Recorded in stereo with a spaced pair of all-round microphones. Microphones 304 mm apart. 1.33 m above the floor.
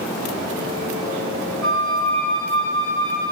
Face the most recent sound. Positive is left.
turn(degrees=-70)  # may be behind; listen again after turning